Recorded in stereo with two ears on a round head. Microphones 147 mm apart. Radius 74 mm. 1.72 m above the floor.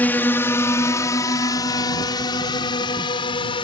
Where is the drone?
10° left (ahead or behind); by 3.6 s 35° left (ahead or behind).